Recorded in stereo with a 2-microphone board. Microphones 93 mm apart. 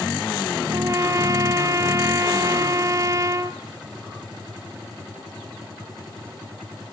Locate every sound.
0.7 s a trumpet: 35° right (ahead or behind), 1.6 m